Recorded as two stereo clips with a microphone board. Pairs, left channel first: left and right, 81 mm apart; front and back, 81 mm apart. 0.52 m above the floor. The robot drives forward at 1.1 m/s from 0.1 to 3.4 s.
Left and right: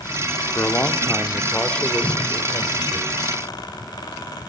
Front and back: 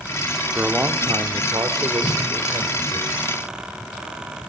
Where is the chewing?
I don't hear chewing.